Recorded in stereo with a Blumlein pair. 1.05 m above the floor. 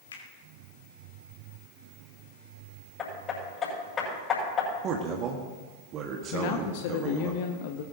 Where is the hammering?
25° left, 6 m.